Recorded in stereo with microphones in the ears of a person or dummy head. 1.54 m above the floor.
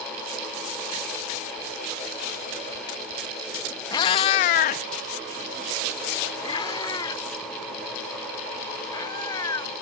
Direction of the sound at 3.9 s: 25° left (ahead or behind).